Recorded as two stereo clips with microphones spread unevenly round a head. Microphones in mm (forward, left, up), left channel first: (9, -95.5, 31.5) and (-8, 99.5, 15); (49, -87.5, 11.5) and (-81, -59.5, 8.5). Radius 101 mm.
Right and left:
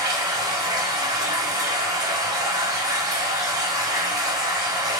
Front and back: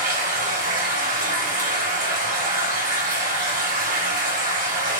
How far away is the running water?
About 1.8 m.